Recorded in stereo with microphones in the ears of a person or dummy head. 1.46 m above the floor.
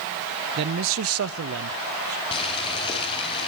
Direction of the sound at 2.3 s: 30° left (ahead or behind).